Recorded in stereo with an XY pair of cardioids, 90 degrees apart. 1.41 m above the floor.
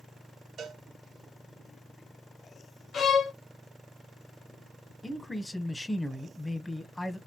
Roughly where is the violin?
Ahead left.